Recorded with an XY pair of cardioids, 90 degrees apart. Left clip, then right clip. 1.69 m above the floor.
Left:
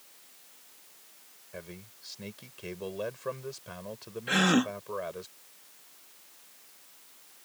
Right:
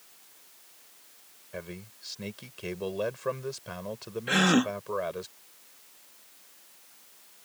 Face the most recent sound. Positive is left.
turn(degrees=-10)